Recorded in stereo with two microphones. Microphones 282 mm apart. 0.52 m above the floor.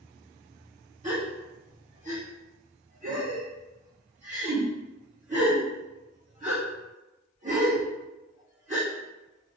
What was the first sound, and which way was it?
A gasp, 25° right (ahead or behind).